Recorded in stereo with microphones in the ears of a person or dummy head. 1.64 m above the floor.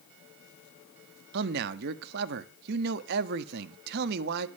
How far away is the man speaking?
About 0.8 m.